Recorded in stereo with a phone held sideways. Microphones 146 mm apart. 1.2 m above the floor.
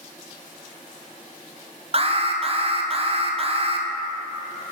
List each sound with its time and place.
1.9 s an alarm: 45° right (ahead or behind), 0.6 m